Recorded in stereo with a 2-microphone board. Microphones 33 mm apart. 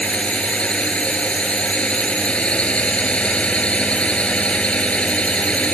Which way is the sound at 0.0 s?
40° left (ahead or behind).